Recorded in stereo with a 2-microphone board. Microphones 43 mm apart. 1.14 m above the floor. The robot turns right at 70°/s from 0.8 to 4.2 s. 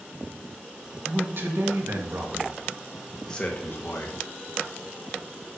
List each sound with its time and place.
1.1 s a man speaking: 140° right, 1.4 m; by 4.2 s 80° left, 1.4 m